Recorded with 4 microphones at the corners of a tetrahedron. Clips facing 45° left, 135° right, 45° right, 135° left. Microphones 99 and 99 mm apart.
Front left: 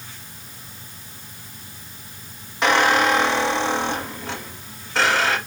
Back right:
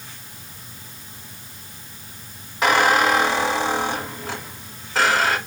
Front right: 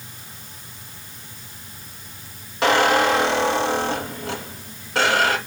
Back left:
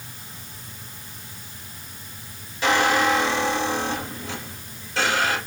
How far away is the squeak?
About 1.8 m.